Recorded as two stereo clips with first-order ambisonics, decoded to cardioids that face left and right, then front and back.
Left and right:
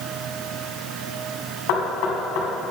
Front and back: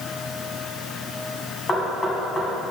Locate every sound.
1.7 s knocking: 70° left, 3.5 m